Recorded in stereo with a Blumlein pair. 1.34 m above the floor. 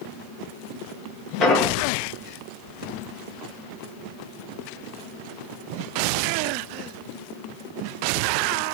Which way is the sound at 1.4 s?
25° left.